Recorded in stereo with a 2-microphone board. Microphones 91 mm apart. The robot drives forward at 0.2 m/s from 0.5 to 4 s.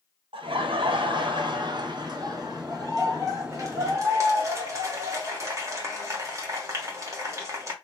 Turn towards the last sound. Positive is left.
turn(degrees=-35)  # may be behind; listen again after turning